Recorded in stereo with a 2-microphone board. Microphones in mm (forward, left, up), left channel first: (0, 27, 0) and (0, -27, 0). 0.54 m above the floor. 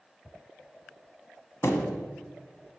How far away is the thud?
About 0.7 m.